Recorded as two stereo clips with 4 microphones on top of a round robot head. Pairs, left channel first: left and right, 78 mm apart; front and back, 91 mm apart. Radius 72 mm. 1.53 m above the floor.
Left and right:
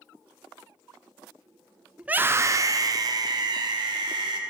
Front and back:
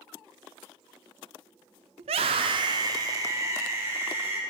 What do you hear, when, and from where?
2.0 s a scream: 170° right, 0.6 m; by 4.4 s 110° right, 2.5 m